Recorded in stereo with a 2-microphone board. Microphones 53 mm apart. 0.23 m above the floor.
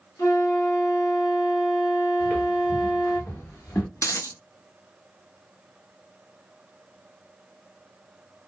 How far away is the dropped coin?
About 0.6 m.